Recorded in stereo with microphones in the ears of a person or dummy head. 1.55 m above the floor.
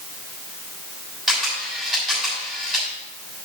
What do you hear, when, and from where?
1.3 s a camera shutter: centre (ahead or behind), 6.5 m